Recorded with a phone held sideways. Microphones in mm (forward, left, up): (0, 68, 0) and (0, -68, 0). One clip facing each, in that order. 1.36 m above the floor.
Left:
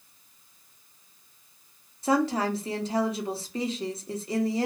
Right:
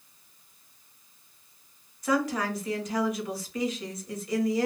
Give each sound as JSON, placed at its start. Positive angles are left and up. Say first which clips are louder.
{"t": 2.0, "sound": "a woman speaking", "louder": "left 3 dB", "side_deg": 30, "distance_m": 0.8}